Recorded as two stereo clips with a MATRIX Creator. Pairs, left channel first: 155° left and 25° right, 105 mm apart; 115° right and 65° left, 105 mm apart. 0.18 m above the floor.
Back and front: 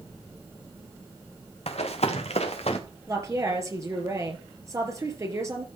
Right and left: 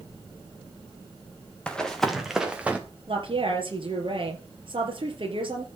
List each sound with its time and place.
1.7 s running footsteps: 170° left, 2.5 m; by 2.8 s 145° left, 2.5 m
3.1 s a woman speaking: 35° left, 3.5 m